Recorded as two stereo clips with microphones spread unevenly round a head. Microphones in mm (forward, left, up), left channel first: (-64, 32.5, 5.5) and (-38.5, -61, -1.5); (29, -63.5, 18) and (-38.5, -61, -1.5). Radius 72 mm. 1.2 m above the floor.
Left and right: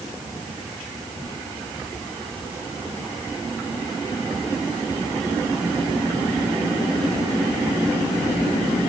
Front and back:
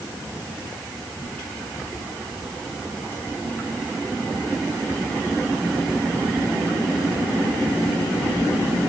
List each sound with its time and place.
Only background noise.